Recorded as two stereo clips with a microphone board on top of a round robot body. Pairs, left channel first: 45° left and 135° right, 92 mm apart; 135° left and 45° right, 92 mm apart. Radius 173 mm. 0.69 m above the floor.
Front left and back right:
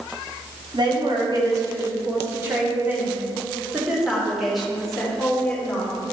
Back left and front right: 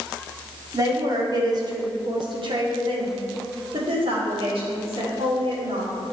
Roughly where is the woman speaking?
Right.